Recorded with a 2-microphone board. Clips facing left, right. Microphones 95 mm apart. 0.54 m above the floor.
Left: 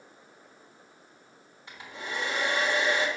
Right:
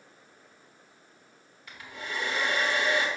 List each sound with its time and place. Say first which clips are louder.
1.7 s a hair dryer: left 1 dB; 25° left (ahead or behind), 1.4 m